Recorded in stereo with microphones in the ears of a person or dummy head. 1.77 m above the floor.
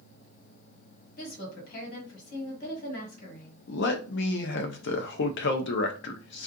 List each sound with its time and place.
1.2 s a woman speaking: 45° left (ahead or behind), 1.6 m
3.7 s a man speaking: 65° left (ahead or behind), 0.6 m